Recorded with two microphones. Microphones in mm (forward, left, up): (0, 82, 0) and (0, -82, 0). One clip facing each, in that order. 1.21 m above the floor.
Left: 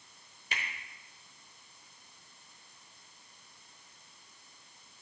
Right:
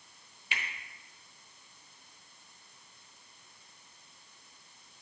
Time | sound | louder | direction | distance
0.5 | a finger snap | even | 40° left (ahead or behind) | 0.9 m